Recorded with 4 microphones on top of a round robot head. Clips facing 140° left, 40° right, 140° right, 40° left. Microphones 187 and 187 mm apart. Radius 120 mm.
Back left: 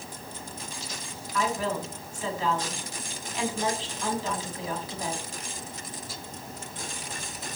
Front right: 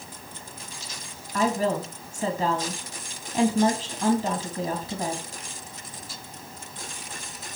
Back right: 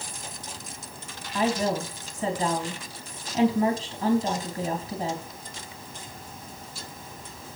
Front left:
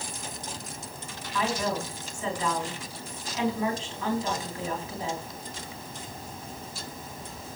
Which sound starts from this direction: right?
A woman speaking, at 1.3 s.